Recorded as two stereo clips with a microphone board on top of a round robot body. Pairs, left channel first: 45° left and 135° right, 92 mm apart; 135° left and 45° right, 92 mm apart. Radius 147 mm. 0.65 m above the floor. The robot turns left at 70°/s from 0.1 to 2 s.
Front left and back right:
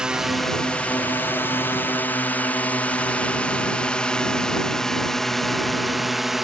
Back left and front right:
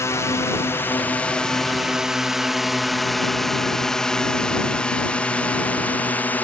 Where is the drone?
150° left; by 6.4 s 145° left.